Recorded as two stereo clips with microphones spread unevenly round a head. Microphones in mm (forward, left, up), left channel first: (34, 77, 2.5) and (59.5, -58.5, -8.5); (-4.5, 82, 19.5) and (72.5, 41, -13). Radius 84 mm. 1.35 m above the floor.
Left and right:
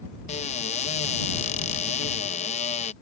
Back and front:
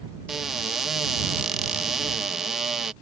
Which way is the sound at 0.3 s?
65° left.